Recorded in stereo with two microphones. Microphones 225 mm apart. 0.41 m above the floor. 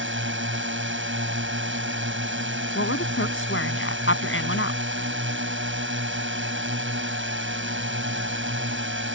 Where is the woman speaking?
65° left (ahead or behind).